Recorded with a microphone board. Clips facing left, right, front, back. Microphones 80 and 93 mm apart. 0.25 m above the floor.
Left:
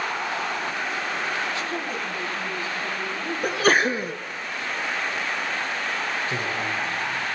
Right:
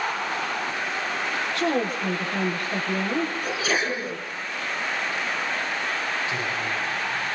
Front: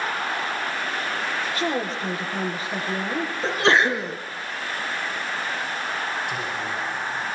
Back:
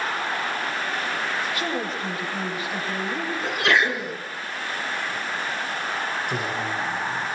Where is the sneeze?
55° left, 3.5 m.